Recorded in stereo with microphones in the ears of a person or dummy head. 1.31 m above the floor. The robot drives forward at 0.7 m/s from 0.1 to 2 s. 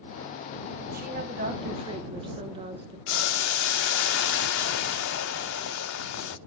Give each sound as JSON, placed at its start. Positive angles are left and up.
{"t": 0.9, "sound": "a woman speaking", "side_deg": -55, "distance_m": 1.0}
{"t": 3.1, "sound": "boiling", "side_deg": 70, "distance_m": 0.6}